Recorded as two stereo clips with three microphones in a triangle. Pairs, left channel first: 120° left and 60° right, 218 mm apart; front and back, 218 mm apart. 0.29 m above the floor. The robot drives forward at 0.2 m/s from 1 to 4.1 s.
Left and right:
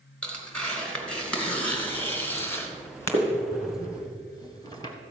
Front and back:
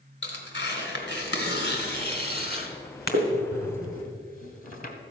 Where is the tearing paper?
35° left, 2.0 m; by 4.9 s 50° left, 1.5 m.